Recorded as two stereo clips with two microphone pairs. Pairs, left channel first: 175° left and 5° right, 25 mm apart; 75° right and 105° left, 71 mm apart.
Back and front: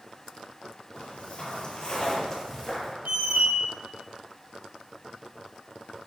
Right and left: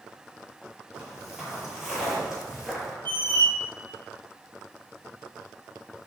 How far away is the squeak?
About 0.5 m.